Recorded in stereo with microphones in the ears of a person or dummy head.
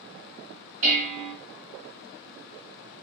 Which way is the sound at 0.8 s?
40° right (ahead or behind).